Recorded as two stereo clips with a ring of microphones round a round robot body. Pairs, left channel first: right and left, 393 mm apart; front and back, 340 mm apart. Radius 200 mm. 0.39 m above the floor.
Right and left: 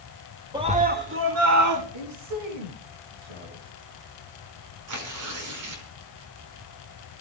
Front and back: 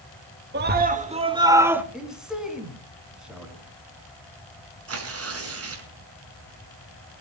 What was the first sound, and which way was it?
A scream, 160° left.